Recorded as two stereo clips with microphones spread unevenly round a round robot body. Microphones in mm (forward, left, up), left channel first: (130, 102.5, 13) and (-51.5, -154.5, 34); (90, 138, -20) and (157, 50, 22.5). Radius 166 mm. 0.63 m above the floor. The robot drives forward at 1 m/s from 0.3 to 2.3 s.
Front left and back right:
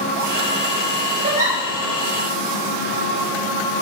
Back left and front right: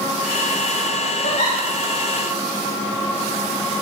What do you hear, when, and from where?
1.2 s a giggle: 165° left, 4.5 m